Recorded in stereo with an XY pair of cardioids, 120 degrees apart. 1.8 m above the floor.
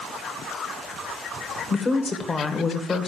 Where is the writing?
No writing in this recording.